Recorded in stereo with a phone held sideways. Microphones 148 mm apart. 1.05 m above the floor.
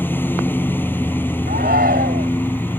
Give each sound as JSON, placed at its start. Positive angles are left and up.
{"t": 0.0, "sound": "a lawn mower", "side_deg": 10}
{"t": 1.5, "sound": "a shout", "side_deg": -80}